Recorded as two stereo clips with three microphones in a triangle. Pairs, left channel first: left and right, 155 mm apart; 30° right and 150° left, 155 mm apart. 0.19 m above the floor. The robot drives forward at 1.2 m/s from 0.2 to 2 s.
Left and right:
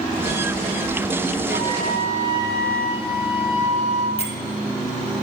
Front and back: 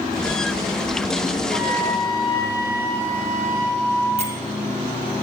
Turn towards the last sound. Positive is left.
turn(degrees=120)